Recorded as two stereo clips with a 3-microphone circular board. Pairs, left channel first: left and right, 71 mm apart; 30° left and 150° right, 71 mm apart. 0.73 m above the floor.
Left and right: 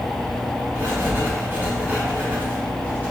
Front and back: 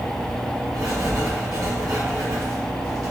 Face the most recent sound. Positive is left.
turn(degrees=-150)